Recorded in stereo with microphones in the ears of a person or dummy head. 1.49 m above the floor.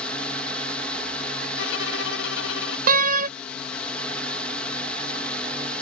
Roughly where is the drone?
Centre.